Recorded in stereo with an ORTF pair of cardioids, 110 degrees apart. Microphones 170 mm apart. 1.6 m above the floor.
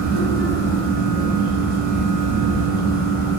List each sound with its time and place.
0.0 s a fan: 60° right, 0.9 m